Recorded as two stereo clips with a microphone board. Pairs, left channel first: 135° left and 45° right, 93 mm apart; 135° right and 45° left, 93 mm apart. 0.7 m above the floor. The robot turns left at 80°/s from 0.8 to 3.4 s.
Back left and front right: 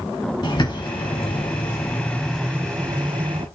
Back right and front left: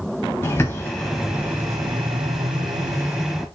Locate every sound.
0.4 s a bird: 165° left, 0.9 m; by 3.5 s 45° right, 0.9 m